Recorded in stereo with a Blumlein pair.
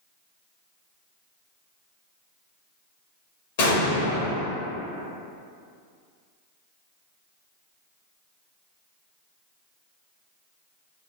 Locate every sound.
3.6 s an explosion: 55° left, 0.7 m